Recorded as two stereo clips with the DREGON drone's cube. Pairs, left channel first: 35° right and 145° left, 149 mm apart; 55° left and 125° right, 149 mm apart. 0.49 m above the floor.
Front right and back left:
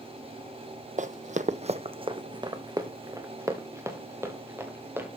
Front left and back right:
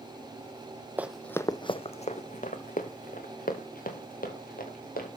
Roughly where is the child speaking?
No child speaking in this recording.